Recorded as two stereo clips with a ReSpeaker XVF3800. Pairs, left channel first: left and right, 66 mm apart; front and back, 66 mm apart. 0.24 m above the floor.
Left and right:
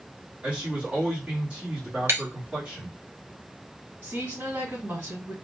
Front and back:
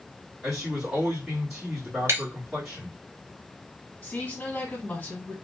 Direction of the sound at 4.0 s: 60° right.